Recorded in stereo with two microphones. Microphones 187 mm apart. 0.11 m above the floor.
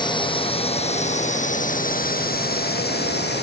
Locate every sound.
0.0 s a drone: 25° left (ahead or behind); by 3.4 s 65° left (ahead or behind)